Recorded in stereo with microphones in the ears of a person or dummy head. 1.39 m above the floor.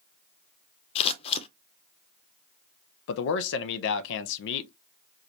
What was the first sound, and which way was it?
Scissors, 30° left (ahead or behind).